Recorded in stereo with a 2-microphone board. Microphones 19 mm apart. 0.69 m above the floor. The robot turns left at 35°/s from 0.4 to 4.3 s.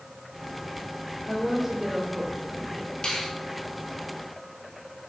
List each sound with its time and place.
1.3 s a woman speaking: 5° right, 2 m; by 3.0 s 65° right, 2 m
3.0 s a finger snap: 40° left (ahead or behind), 1.9 m; by 3.3 s 35° left (ahead or behind), 1.9 m